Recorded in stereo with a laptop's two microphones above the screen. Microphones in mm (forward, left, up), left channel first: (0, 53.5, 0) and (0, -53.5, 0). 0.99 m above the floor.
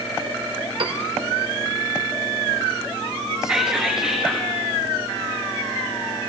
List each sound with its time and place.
0.8 s a piano: 60° right (ahead or behind), 1.8 m
3.4 s whispering: 5° right (ahead or behind), 1.5 m